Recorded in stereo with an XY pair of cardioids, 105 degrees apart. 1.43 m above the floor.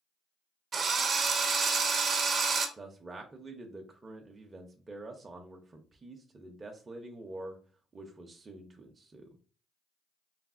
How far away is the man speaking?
About 0.5 m.